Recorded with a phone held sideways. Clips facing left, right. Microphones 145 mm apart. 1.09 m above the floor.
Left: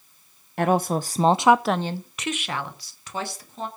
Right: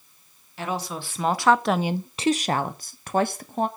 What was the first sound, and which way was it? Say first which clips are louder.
A woman speaking: left 9 dB; 55° left (ahead or behind).